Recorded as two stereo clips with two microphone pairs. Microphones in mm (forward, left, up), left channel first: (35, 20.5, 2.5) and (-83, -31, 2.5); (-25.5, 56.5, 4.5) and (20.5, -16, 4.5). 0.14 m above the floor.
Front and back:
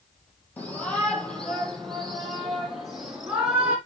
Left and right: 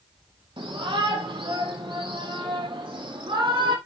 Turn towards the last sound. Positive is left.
turn(degrees=-75)